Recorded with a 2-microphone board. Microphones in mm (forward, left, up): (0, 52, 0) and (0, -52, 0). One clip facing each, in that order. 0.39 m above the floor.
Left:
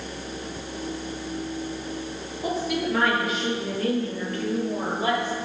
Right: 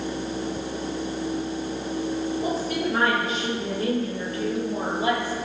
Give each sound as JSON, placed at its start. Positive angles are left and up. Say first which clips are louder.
{"t": 2.4, "sound": "a woman speaking", "louder": "right 1 dB", "side_deg": -35, "distance_m": 7.0}